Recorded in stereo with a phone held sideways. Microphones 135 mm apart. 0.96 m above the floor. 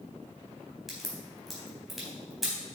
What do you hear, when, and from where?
0.9 s a crack: centre (ahead or behind), 4 m